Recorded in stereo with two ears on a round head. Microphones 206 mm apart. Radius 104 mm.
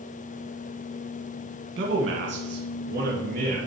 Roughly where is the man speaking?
Right.